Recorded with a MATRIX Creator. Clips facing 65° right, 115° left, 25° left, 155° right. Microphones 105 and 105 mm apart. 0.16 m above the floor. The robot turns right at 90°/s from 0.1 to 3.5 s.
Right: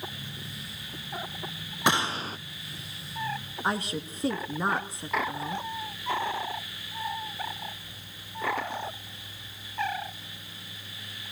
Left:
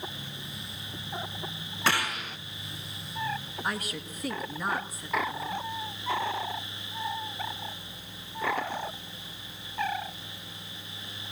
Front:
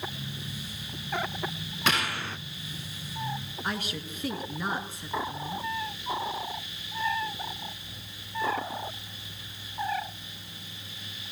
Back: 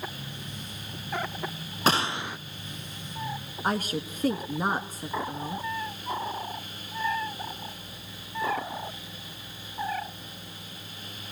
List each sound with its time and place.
1.9 s a gunshot: 130° right, 0.5 m; by 2.4 s 85° right, 0.5 m
3.6 s a woman speaking: 120° right, 1.6 m